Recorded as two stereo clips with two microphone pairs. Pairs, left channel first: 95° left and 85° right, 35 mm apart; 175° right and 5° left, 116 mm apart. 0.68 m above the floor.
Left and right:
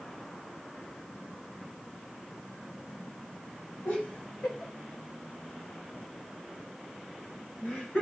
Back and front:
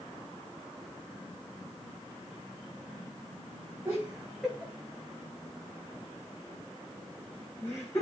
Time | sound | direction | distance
3.9 | laughter | 80° left | 2.5 m